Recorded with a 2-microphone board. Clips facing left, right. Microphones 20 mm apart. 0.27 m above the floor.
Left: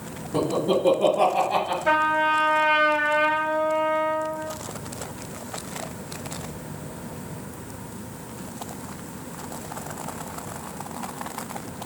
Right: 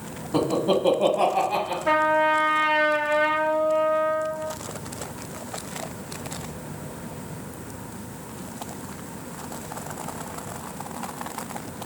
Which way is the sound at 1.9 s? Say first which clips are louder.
Right 2 dB; 15° left (ahead or behind).